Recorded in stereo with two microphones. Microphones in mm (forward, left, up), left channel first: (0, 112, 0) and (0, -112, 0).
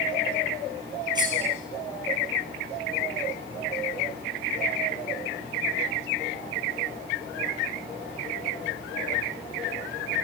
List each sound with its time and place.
1.1 s cutlery clinking: 20° right (ahead or behind), 3 m